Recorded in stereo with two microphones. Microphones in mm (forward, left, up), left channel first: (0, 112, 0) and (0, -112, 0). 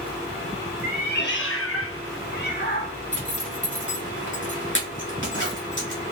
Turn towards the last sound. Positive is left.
turn(degrees=55)  # may be behind; listen again after turning